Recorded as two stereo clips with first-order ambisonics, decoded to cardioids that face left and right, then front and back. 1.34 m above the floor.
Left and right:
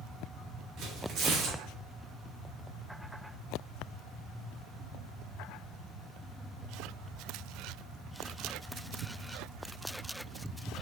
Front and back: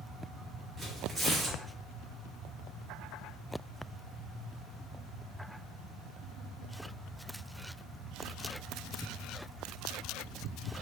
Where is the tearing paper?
110° right, 0.8 m.